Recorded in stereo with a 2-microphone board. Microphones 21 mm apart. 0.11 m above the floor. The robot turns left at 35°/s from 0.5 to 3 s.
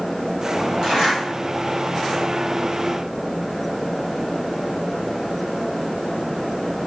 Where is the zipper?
40° right (ahead or behind), 1.7 m; by 1.2 s 35° right (ahead or behind), 1.7 m.